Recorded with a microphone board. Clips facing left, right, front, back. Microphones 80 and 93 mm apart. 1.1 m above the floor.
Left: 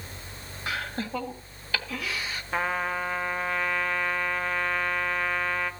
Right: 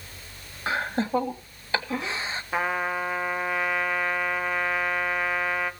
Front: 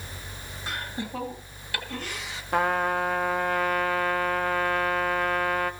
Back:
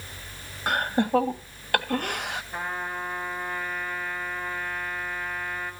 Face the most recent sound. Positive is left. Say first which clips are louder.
# right 1 dB, front 12 dB
turn(degrees=-5)